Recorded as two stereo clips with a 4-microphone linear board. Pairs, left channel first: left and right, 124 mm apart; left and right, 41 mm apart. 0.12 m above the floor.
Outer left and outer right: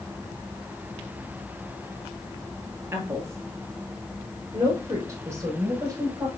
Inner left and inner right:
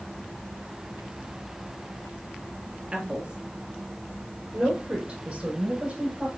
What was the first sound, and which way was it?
A woman speaking, 20° right (ahead or behind).